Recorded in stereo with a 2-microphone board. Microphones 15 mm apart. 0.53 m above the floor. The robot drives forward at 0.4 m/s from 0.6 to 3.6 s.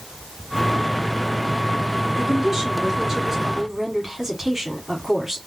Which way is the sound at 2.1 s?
30° right (ahead or behind).